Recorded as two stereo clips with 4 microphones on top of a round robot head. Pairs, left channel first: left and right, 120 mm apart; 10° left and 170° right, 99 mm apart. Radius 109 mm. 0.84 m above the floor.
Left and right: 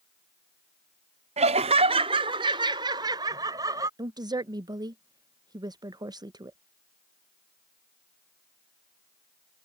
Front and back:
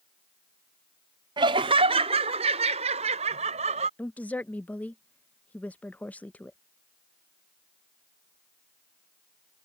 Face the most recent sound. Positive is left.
turn(degrees=-60)